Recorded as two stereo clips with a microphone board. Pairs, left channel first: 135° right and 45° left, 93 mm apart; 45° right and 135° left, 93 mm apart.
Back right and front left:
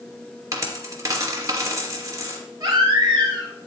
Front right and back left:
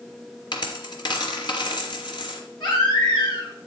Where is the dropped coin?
10° right, 3 m.